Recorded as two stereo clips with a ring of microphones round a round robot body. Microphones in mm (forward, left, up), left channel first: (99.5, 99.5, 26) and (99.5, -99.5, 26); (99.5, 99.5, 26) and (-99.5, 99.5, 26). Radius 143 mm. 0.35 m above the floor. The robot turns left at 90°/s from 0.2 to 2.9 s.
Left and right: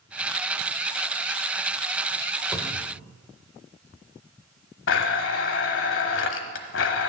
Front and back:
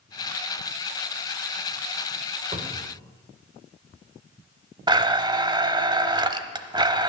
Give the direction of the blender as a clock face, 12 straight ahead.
8 o'clock.